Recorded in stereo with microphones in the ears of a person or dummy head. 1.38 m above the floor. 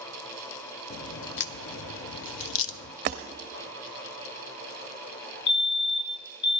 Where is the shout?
I don't hear a shout.